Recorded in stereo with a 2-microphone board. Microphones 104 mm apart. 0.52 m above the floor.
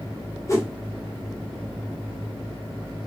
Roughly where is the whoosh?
Left.